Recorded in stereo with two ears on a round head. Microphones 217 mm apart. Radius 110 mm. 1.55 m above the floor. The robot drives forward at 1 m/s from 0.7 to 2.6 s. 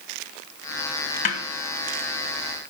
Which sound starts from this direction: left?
A snare drum, at 1.2 s.